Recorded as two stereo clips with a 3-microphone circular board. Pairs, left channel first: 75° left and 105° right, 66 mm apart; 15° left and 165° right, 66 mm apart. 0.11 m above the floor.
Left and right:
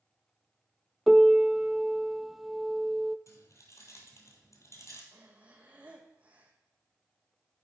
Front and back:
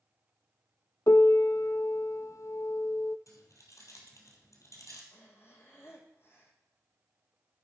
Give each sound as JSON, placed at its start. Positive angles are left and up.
{"t": 1.1, "sound": "a piano", "azimuth_deg": -15, "distance_m": 0.5}
{"t": 3.3, "sound": "keys jangling", "azimuth_deg": 40, "distance_m": 2.0}
{"t": 5.1, "sound": "breathing", "azimuth_deg": -35, "distance_m": 1.8}